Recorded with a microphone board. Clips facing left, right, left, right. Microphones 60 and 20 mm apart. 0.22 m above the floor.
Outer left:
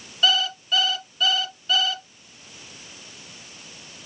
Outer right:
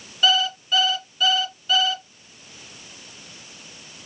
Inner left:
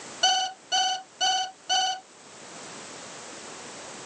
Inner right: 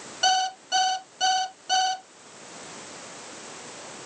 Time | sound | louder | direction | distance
0.2 | an alarm clock | outer right 2 dB, inner right 1 dB | centre (ahead or behind) | 1.1 m